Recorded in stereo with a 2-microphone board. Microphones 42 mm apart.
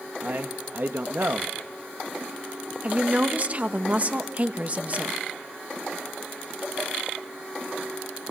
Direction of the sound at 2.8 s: 35° right (ahead or behind).